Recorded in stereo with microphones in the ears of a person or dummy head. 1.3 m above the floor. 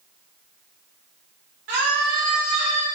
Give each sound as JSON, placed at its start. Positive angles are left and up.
{"t": 1.7, "sound": "a scream", "side_deg": -60, "distance_m": 1.2}